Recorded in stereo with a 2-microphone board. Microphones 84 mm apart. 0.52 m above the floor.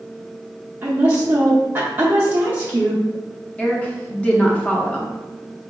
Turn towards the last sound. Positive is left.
turn(degrees=15)  # may be behind; listen again after turning